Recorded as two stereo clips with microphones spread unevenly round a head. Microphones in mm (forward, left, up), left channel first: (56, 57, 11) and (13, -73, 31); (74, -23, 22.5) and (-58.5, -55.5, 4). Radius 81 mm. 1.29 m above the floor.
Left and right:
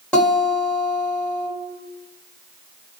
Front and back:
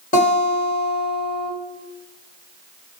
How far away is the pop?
I don't hear a pop.